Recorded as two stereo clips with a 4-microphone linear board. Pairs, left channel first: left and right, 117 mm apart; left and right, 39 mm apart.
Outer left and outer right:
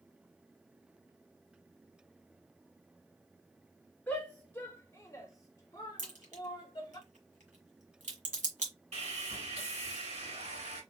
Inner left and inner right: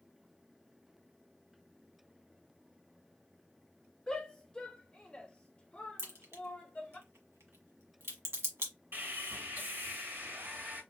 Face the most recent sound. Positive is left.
turn(degrees=-60)  # may be behind; listen again after turning